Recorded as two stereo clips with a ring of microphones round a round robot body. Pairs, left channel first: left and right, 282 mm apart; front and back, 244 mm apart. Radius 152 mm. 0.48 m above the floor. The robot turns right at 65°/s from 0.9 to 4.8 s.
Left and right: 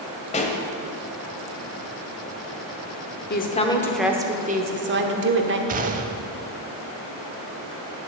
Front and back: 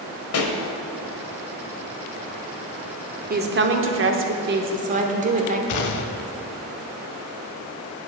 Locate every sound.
0.3 s a pop: 25° left, 1.3 m
3.3 s a woman speaking: 135° left, 1.2 m; by 5.6 s 125° right, 1.2 m
5.7 s a gunshot: 25° right, 0.5 m